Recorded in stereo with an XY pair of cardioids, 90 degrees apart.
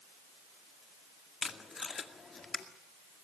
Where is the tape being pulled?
40° left, 2 m.